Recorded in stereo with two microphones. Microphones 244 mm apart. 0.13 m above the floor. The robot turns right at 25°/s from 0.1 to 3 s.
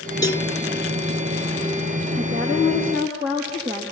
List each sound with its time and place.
0.2 s a cowbell: 15° left (ahead or behind), 0.5 m; by 0.5 s 20° left (ahead or behind), 0.5 m
2.2 s a woman speaking: 50° right (ahead or behind), 5.5 m; by 3.8 s 30° right (ahead or behind), 5.5 m